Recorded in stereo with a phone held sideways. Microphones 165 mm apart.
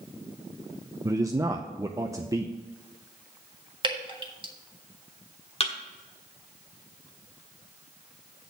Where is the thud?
40° left (ahead or behind), 1.3 m.